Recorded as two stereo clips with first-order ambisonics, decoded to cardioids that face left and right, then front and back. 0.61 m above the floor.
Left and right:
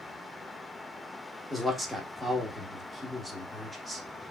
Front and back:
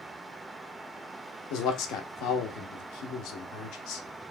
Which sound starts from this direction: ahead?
A man speaking, at 1.5 s.